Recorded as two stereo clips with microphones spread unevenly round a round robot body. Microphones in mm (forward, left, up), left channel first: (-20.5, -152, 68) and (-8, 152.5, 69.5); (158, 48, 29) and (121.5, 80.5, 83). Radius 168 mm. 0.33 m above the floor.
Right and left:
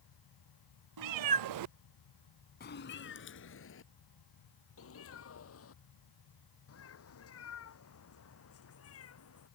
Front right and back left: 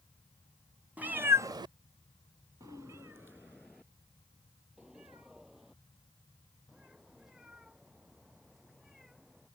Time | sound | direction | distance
1.0 | a cat meowing | 65° left | ?